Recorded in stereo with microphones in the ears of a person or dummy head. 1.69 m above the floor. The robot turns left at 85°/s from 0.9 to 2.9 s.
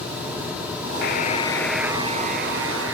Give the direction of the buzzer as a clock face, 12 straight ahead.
10 o'clock.